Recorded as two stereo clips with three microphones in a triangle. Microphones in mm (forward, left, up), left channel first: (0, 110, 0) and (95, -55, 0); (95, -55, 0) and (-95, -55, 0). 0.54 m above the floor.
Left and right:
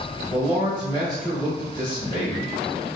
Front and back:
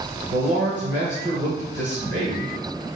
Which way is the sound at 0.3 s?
Straight behind.